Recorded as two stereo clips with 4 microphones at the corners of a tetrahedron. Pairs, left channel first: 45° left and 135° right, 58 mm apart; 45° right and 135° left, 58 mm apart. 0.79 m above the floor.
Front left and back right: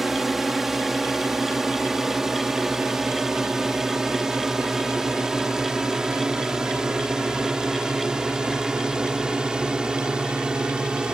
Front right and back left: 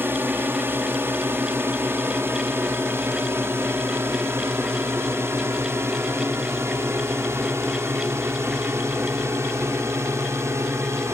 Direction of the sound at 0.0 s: 140° left.